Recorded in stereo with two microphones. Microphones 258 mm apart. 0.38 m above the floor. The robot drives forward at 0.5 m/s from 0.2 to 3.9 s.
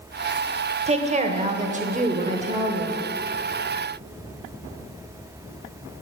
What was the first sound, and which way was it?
A woman speaking, 25° right (ahead or behind).